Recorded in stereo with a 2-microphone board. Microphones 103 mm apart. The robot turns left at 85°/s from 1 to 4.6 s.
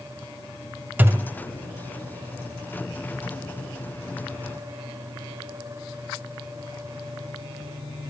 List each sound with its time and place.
1.0 s a thud: 15° right (ahead or behind), 0.5 m; by 1.3 s 45° right (ahead or behind), 0.5 m